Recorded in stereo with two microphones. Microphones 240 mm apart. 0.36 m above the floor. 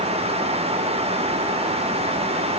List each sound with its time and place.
Only background noise.